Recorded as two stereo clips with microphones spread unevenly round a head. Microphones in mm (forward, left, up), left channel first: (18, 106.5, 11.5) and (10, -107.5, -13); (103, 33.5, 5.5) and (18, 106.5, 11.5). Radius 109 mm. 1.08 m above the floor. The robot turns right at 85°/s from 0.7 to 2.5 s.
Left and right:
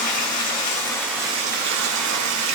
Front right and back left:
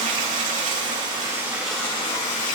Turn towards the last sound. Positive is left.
turn(degrees=-60)